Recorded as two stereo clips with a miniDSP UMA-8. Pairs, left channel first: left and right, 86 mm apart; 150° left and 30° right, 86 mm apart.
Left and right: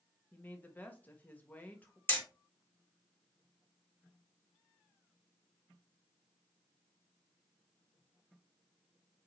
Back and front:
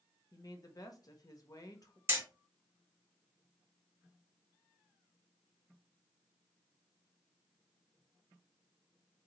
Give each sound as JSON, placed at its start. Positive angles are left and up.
{"t": 0.3, "sound": "a woman speaking", "azimuth_deg": 150, "distance_m": 1.0}
{"t": 2.1, "sound": "hammering", "azimuth_deg": 25, "distance_m": 2.5}